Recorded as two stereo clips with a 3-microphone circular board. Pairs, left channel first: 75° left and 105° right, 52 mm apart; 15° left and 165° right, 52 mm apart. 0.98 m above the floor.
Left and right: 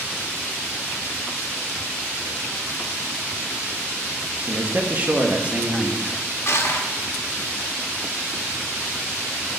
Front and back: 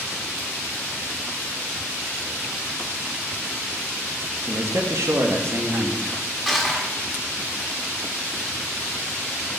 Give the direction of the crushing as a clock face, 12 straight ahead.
8 o'clock.